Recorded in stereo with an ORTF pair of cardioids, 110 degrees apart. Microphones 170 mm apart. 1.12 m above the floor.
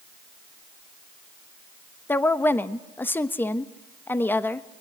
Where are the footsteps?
No footsteps in this recording.